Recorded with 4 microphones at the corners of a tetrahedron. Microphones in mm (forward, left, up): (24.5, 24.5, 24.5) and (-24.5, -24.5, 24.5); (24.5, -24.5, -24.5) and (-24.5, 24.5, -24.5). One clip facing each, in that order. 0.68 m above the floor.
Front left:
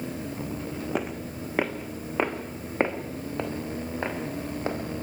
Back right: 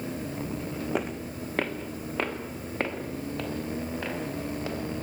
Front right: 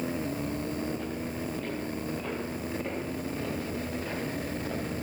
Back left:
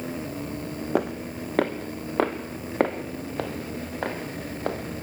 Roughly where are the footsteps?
Behind left.